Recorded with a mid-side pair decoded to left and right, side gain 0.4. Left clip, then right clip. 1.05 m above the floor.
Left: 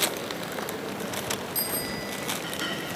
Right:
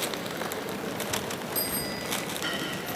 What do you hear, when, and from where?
1.6 s a bicycle bell: 10° left, 6 m